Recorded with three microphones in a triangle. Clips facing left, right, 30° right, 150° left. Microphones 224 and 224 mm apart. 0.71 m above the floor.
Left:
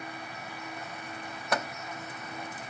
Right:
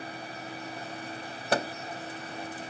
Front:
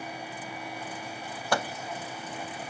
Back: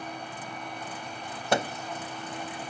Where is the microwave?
140° right.